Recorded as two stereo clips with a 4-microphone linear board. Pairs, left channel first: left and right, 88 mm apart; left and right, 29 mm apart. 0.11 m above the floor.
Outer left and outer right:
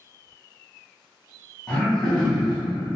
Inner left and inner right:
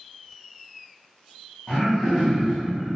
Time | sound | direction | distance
1.7 | throat clearing | 15° left (ahead or behind) | 1.6 m